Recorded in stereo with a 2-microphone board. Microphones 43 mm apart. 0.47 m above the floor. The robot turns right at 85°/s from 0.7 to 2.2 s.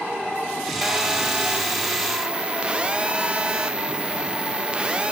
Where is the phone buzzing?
5° right (ahead or behind), 0.8 m; by 5.1 s 20° right (ahead or behind), 0.8 m.